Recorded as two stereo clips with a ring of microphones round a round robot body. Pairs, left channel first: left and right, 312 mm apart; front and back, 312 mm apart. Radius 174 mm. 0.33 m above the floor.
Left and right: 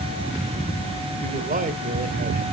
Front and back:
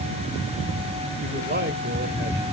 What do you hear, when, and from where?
1.2 s a man speaking: 140° right, 1.3 m